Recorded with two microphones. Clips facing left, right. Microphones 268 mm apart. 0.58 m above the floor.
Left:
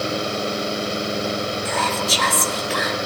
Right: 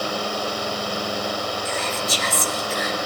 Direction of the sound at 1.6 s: 80° left.